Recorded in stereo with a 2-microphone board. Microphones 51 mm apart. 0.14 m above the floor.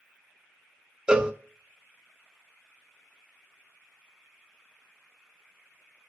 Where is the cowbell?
20° right (ahead or behind), 0.5 m.